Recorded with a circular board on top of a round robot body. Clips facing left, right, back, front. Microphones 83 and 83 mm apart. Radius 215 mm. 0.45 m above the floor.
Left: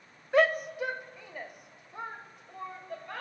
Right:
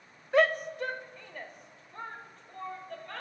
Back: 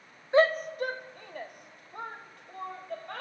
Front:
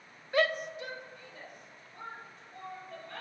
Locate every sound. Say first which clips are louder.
0.3 s a shout: even, back 6 dB; straight behind, 0.8 m; by 3.2 s 165° left, 3 m